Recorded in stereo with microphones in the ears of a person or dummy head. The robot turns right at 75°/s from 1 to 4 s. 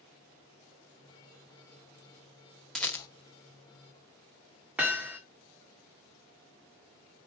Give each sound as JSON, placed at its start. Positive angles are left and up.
{"t": 2.8, "sound": "a rattle", "side_deg": 5, "distance_m": 1.0}
{"t": 4.8, "sound": "hammering", "side_deg": -10, "distance_m": 1.7}